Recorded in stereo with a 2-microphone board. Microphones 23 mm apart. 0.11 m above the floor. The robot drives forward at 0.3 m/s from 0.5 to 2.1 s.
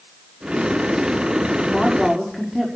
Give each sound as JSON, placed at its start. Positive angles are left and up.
{"t": 1.7, "sound": "a woman speaking", "side_deg": 0, "distance_m": 6.0}